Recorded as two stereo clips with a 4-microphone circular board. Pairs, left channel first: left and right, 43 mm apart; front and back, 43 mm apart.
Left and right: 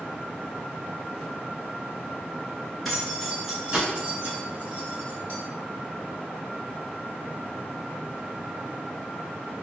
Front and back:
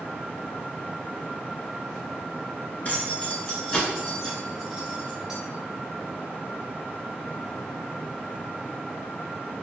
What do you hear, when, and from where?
2.9 s keys jangling: straight ahead, 1.1 m; by 5.4 s 110° right, 1.4 m